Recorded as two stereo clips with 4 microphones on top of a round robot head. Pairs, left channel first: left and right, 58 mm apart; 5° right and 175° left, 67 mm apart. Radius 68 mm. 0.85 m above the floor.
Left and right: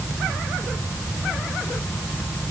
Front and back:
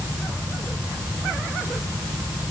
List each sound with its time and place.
Only background noise.